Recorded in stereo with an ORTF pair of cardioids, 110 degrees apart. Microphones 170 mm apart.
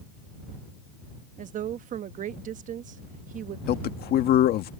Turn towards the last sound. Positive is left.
turn(degrees=70)